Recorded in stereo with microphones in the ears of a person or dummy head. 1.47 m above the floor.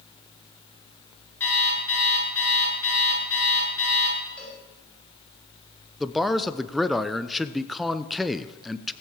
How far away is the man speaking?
About 0.8 m.